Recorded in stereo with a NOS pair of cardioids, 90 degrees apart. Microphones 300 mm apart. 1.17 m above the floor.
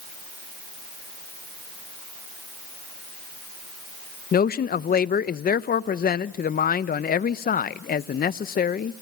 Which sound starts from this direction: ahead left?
A man speaking, at 4.3 s.